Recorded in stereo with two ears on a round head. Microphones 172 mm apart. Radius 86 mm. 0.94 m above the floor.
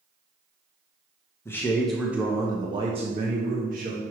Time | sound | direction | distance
1.4 | a man speaking | 15° left (ahead or behind) | 0.9 m